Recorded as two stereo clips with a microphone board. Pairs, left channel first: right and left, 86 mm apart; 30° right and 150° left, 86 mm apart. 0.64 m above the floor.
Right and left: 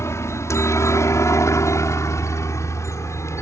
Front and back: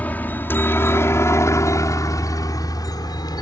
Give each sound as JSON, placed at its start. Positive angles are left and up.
{"t": 0.0, "sound": "a helicopter", "azimuth_deg": -85}